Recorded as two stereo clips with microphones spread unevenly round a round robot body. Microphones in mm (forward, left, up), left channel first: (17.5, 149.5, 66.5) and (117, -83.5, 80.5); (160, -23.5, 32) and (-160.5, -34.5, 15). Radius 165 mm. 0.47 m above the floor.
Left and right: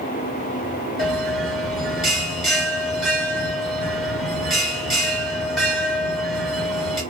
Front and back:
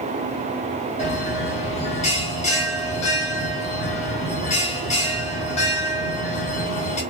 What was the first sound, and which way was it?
A bell, 30° left.